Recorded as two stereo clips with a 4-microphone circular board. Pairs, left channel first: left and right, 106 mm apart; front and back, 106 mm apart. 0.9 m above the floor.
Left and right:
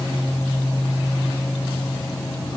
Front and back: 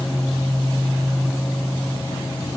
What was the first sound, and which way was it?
Only background noise.